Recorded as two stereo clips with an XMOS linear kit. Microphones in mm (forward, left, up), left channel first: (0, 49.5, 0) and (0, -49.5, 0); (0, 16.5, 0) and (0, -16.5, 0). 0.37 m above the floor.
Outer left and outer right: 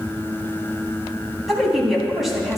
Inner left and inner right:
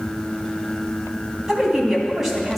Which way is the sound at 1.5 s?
Centre (ahead or behind).